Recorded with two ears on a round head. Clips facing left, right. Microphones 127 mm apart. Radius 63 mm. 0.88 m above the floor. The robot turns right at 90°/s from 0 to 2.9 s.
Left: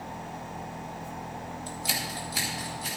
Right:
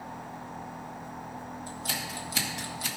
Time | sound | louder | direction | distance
1.7 | scissors | left 3 dB | 30° left (ahead or behind) | 1.8 m